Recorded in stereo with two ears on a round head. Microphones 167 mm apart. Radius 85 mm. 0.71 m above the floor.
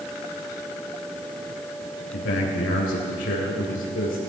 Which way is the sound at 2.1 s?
75° left (ahead or behind).